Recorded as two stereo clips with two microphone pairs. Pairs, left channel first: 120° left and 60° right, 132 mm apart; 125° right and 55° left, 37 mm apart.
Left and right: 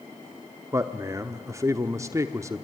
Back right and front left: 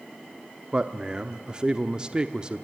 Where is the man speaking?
5° right, 0.8 m.